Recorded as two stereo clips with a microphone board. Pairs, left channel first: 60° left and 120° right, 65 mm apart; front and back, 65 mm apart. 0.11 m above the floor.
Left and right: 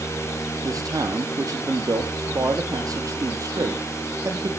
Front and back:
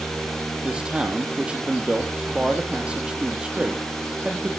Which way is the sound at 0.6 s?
110° right.